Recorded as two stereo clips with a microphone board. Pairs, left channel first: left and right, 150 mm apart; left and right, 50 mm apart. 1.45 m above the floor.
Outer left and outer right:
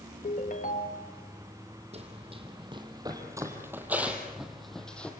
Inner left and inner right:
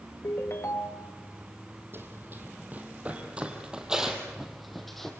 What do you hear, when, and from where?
0.2 s a ringtone: 60° left (ahead or behind), 1.4 m
1.9 s running footsteps: 45° right (ahead or behind), 3.5 m; by 5.1 s 10° left (ahead or behind), 3.5 m